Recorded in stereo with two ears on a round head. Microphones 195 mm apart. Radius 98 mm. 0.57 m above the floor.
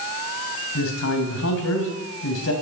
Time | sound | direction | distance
0.8 | a man speaking | 75° left (ahead or behind) | 3.5 m